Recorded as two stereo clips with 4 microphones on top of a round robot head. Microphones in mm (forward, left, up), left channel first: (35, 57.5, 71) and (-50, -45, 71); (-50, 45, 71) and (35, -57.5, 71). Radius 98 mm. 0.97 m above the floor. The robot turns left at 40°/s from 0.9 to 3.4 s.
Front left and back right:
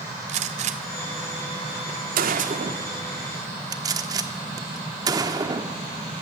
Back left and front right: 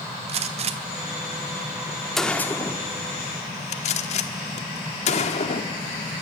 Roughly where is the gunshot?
Right.